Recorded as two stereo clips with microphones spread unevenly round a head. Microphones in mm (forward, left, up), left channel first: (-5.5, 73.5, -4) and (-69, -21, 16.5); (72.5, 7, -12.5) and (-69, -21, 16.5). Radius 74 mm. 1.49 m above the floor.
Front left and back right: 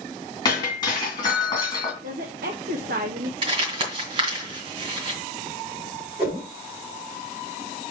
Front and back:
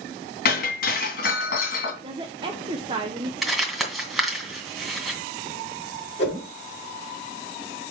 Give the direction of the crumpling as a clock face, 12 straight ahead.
3 o'clock.